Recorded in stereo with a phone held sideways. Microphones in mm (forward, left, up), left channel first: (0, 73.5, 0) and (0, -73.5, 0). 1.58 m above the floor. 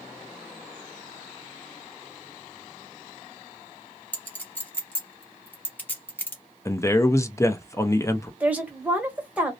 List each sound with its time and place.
4.1 s a clink: 10° left (ahead or behind), 1.1 m
6.7 s a man speaking: 20° left (ahead or behind), 0.5 m
8.4 s a woman speaking: 10° right (ahead or behind), 1.0 m